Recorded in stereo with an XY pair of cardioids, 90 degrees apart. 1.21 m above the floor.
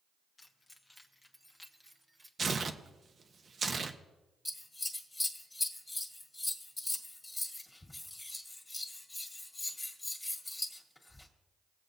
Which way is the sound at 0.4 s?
30° left.